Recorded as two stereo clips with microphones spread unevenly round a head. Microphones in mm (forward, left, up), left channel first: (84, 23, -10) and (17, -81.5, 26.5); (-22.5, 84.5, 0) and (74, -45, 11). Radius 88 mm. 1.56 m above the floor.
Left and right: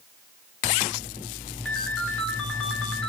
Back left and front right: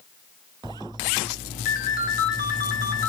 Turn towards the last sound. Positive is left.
turn(degrees=155)